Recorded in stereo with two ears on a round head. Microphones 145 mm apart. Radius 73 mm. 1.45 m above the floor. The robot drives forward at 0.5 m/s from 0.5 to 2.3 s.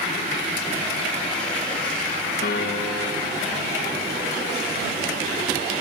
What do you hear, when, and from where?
2.4 s a piano: 55° left (ahead or behind), 1.4 m